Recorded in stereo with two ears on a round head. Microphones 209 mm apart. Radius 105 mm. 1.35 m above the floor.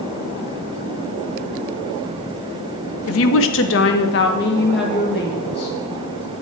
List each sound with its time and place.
3.1 s a woman speaking: 65° left (ahead or behind), 0.6 m; by 5.8 s 45° left (ahead or behind), 2.5 m